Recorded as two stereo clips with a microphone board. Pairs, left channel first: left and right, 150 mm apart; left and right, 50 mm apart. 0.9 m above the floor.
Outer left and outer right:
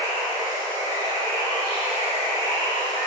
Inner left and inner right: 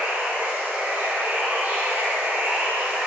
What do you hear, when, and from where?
0.0 s running water: 30° right (ahead or behind), 1.9 m